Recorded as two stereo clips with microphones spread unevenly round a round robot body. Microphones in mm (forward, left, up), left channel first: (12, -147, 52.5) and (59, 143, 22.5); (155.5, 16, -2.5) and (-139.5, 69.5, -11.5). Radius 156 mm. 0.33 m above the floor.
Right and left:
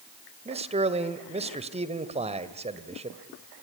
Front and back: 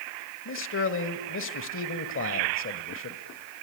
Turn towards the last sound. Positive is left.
turn(degrees=25)